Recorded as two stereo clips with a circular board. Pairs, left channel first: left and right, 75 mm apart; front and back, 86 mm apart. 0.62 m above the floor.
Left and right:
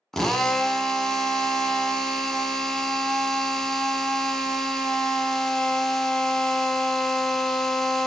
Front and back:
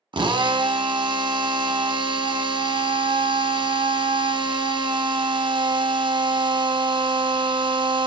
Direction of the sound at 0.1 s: 175° left.